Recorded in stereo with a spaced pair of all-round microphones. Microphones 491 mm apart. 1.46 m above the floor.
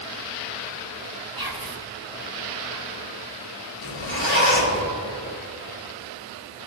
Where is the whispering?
45° right (ahead or behind), 1.4 m.